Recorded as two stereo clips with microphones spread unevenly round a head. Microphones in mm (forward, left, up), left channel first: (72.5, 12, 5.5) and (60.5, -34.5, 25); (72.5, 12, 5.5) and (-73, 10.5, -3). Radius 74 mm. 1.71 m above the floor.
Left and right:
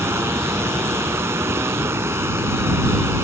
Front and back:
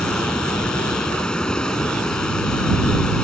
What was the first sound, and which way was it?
Running water, 85° right.